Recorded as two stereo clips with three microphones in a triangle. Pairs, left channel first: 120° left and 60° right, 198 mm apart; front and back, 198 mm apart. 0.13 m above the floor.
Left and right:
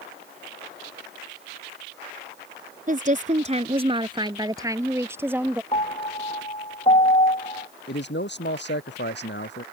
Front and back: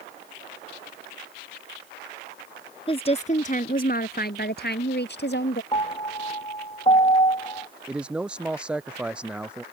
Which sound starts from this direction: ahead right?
A woman speaking, at 2.9 s.